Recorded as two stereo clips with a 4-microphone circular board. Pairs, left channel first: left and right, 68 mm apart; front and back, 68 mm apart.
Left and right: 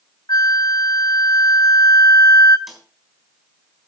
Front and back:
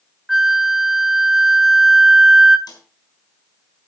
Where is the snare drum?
Straight ahead, 3.5 m.